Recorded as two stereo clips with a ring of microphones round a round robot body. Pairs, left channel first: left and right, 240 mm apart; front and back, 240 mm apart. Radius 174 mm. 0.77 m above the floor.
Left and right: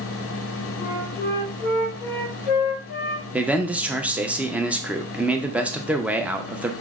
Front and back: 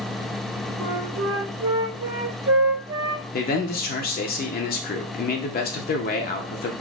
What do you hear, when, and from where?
0.8 s a flute: 175° right, 1.6 m
3.3 s a man speaking: 10° right, 0.6 m